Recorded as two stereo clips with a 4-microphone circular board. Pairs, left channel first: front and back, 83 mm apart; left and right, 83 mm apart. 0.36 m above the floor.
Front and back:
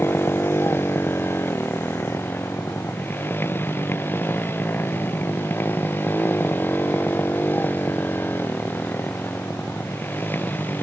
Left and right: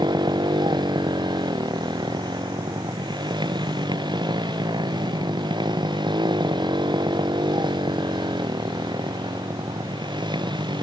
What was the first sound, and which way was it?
A motorcycle, 65° right.